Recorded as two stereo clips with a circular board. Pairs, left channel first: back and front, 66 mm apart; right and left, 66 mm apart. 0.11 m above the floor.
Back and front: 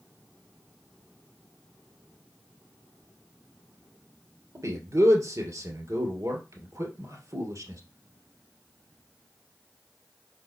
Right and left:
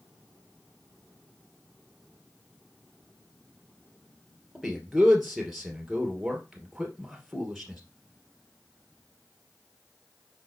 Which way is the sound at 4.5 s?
Straight ahead.